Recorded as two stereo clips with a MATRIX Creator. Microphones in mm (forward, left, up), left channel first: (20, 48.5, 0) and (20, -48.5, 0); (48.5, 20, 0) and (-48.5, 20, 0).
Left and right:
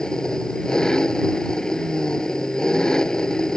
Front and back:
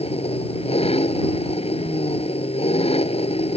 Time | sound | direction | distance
0.0 | an engine running | 5° left | ?